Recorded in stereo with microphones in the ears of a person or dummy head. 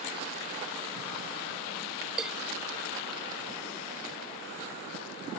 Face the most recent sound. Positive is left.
turn(degrees=-5)  # may be behind; listen again after turning